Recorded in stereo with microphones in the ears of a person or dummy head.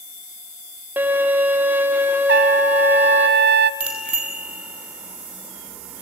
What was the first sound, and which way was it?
A violin, 10° right (ahead or behind).